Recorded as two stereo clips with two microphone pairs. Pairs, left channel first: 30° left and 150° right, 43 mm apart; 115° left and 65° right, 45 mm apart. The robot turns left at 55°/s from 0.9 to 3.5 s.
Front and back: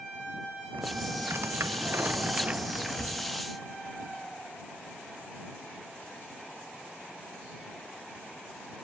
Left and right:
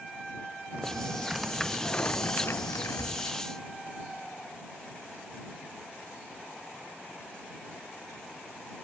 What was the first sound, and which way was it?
Typing on a keyboard, 125° right.